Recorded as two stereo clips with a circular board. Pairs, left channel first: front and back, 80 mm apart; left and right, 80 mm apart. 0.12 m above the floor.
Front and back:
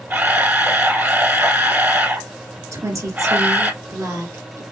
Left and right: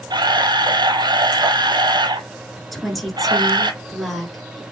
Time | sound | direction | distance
0.1 | a camera shutter | 115° right | 0.7 m
2.7 | a woman speaking | 175° left | 1.6 m